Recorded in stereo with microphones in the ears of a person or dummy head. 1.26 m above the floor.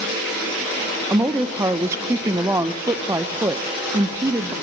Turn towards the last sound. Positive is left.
turn(degrees=-15)  # may be behind; listen again after turning